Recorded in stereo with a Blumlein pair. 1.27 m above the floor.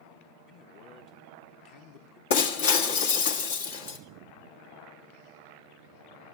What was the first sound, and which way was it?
A man speaking, 35° left.